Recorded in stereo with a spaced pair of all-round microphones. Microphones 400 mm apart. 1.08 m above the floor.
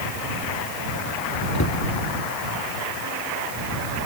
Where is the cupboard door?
40° left (ahead or behind).